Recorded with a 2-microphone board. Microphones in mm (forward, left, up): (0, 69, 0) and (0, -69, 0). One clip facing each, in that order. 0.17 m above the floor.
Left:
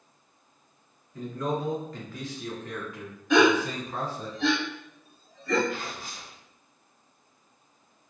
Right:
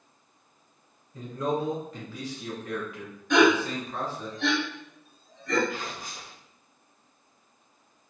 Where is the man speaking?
25° right (ahead or behind), 1.8 m; by 4.3 s 25° left (ahead or behind), 1.4 m.